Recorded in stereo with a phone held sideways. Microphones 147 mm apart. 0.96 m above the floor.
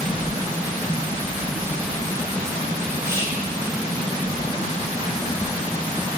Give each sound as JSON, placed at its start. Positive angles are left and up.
{"t": 3.0, "sound": "whispering", "side_deg": -20, "distance_m": 2.5}